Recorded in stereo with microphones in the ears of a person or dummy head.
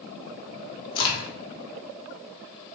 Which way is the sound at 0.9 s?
25° left (ahead or behind).